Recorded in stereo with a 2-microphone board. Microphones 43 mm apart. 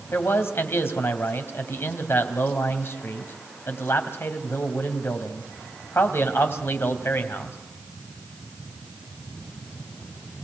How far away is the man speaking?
About 3 m.